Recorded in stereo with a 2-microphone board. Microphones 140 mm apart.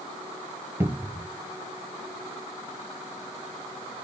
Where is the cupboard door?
20° right (ahead or behind), 1.2 m.